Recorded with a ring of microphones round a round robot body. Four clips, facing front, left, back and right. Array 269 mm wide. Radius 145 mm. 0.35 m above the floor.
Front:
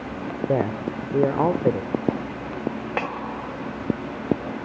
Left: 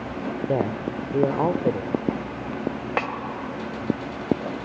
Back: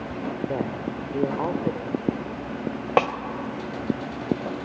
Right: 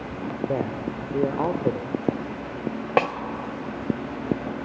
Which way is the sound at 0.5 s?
20° left.